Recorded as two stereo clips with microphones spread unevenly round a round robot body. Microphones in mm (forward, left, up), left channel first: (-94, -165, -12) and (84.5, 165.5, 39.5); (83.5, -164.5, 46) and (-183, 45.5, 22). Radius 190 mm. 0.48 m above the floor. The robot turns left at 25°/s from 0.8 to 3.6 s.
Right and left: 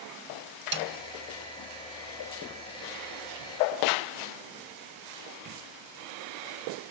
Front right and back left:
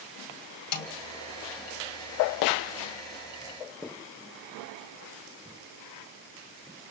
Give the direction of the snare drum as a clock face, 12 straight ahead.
12 o'clock.